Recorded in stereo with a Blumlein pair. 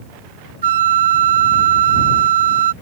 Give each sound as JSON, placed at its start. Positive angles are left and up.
{"t": 0.6, "sound": "a flute", "azimuth_deg": -60}